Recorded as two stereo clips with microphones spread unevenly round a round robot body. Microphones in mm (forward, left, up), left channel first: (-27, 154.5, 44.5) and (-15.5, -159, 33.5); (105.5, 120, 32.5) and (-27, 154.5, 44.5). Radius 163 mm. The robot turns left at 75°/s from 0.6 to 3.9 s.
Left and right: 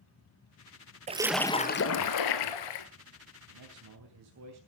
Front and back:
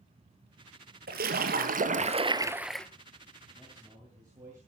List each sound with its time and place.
1.1 s a splash: 160° right, 1.4 m; by 2.9 s 70° left, 1.4 m
3.5 s a man speaking: 85° right, 3.5 m; by 4.6 s 115° right, 3.5 m